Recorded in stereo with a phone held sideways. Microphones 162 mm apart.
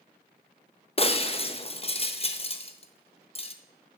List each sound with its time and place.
1.0 s breaking glass: 35° left (ahead or behind), 0.6 m